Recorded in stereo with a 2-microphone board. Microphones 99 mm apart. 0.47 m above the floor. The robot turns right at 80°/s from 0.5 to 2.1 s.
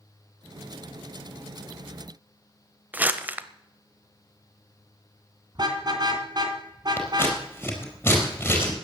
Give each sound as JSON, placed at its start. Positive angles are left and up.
{"t": 2.9, "sound": "crumpling", "side_deg": -15, "distance_m": 0.9}
{"t": 5.5, "sound": "a car horn", "side_deg": -45, "distance_m": 2.5}
{"t": 7.0, "sound": "scissors", "side_deg": 20, "distance_m": 4.5}